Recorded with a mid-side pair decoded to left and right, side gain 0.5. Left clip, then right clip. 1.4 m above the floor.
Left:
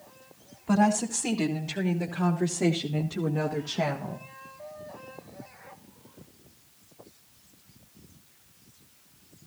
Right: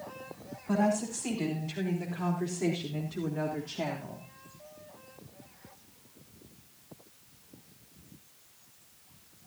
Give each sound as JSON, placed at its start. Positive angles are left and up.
{"t": 0.7, "sound": "a woman speaking", "azimuth_deg": 55, "distance_m": 4.0}